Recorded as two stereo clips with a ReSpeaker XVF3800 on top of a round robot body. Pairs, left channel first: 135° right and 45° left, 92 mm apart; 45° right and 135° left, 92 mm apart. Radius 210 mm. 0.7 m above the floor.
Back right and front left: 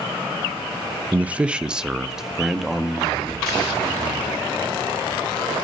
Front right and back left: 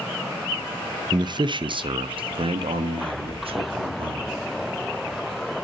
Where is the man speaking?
115° left, 0.9 m; by 4.4 s 135° left, 2.5 m.